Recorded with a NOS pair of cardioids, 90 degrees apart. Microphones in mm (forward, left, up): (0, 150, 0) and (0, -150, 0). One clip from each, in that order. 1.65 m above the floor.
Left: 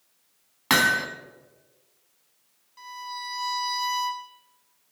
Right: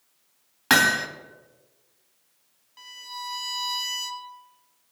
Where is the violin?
25° right, 0.9 m.